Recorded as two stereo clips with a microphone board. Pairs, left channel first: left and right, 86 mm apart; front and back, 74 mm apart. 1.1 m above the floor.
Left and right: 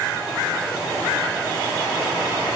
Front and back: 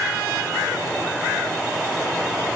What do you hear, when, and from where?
Only background noise.